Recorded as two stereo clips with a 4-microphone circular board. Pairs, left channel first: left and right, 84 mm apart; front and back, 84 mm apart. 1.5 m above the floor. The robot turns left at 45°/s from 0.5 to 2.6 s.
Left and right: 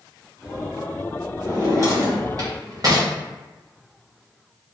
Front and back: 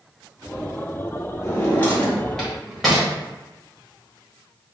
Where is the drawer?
40° right, 1.0 m; by 3.1 s 90° right, 1.0 m.